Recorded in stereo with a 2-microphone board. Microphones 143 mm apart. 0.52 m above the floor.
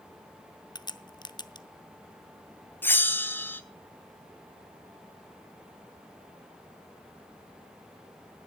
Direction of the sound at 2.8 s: 15° left (ahead or behind).